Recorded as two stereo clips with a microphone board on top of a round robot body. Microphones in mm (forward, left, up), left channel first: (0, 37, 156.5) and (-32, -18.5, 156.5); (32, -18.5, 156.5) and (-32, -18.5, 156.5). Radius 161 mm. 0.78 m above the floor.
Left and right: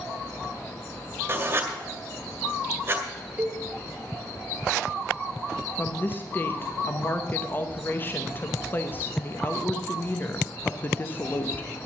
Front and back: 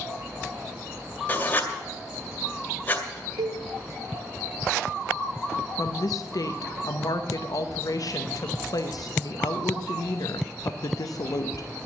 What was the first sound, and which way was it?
Writing, 60° right.